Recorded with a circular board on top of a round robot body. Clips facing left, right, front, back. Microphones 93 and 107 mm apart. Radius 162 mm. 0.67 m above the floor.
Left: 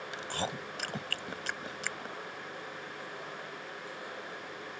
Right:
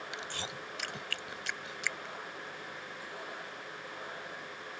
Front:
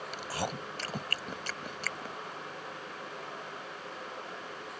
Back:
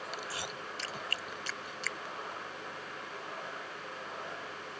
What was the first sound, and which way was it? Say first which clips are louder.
Chewing: left 9 dB, front 5 dB; 45° left.